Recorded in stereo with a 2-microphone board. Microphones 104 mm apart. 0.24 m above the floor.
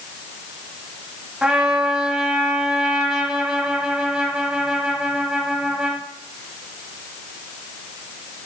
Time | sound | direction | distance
1.4 | a trumpet | 5° right (ahead or behind) | 1.0 m